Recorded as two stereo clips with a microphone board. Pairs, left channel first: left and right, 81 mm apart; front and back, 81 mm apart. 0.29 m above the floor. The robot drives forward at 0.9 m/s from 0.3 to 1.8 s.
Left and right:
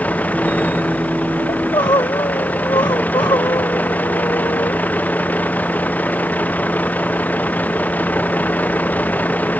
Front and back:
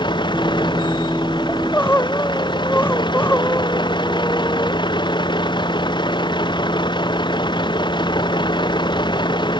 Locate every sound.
0.0 s a vehicle: 15° left; by 9.6 s 20° left
1.5 s crying: 60° left; by 4.8 s 65° left